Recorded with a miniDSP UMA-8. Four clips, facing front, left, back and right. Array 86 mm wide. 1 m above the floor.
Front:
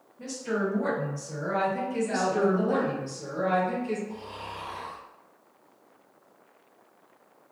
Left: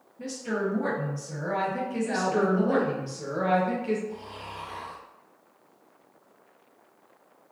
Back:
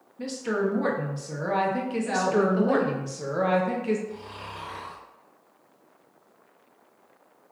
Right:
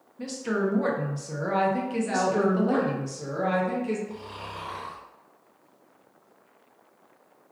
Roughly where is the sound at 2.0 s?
Behind.